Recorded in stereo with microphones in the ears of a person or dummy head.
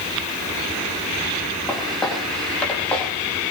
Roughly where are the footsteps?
Centre.